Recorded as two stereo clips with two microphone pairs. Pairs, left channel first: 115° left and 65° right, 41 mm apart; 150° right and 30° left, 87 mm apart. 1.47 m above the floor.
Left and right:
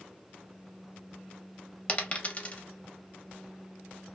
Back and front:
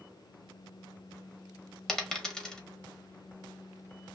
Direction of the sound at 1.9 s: 130° left.